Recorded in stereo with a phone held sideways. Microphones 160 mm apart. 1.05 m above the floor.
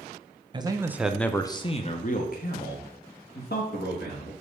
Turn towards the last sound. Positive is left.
turn(degrees=75)  # may be behind; listen again after turning